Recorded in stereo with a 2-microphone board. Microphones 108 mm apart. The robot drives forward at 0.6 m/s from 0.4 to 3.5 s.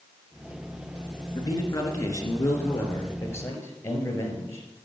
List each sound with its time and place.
1.4 s a man speaking: 35° left (ahead or behind), 2.5 m; by 4.7 s 25° left (ahead or behind), 3.5 m